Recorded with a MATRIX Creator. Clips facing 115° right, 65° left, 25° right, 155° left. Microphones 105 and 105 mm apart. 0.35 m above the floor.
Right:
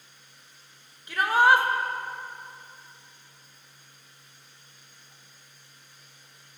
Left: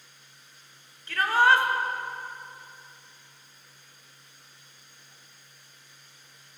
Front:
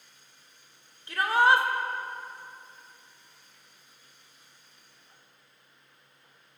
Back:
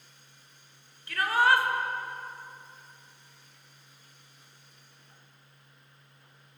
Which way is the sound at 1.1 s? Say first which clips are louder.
Right 1 dB, front 2 dB; 55° right.